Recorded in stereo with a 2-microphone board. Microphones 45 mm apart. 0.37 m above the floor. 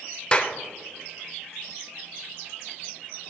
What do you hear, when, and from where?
0.3 s a clap: 20° left (ahead or behind), 0.7 m